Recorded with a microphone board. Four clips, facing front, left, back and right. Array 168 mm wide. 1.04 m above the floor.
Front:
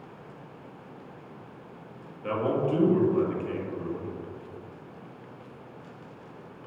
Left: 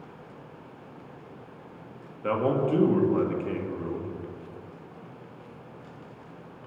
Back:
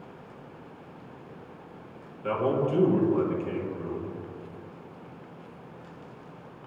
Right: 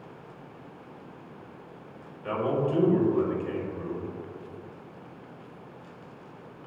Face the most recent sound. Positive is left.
turn(degrees=95)